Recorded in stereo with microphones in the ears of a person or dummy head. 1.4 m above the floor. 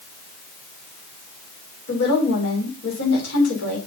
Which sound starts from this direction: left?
A woman speaking, at 1.9 s.